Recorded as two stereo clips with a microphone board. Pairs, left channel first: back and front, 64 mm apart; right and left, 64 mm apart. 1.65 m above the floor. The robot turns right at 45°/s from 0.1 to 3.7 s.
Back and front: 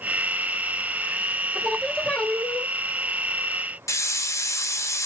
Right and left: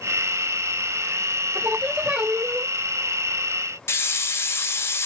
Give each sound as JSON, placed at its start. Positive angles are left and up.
{"t": 1.6, "sound": "singing", "azimuth_deg": 100, "distance_m": 0.7}
{"t": 3.9, "sound": "a hiss", "azimuth_deg": -140, "distance_m": 0.6}